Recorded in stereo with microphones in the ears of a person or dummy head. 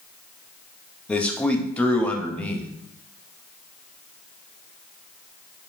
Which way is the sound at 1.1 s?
10° left (ahead or behind).